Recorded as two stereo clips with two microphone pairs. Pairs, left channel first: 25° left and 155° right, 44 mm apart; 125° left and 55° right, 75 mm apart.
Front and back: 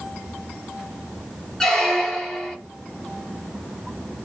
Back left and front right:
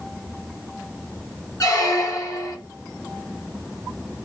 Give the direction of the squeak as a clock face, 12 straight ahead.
9 o'clock.